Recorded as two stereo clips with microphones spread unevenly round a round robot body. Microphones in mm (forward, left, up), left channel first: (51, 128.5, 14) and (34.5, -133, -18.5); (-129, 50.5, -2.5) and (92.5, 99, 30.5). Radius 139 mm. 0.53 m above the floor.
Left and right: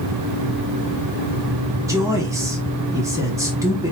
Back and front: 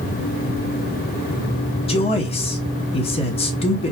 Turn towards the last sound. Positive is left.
turn(degrees=-150)